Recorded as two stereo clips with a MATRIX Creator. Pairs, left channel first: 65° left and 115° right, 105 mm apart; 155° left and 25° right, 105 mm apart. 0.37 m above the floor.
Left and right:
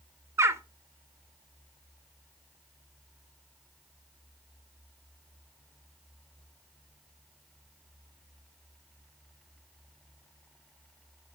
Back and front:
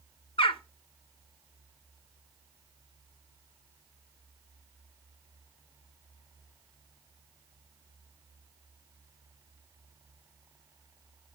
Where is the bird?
175° right, 0.6 m.